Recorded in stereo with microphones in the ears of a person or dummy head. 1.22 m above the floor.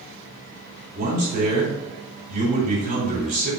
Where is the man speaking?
50° right (ahead or behind), 3.5 m.